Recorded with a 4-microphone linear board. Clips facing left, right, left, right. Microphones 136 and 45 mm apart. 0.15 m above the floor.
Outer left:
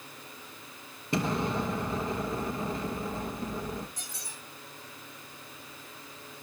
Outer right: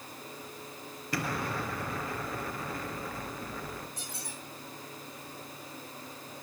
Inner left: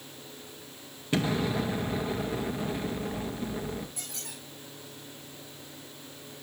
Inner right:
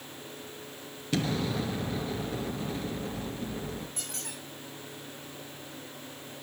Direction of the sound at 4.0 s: 60° right (ahead or behind).